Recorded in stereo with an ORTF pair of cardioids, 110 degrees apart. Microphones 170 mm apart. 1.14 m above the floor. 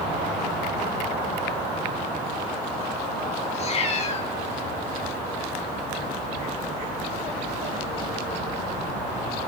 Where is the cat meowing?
40° left, 1.2 m.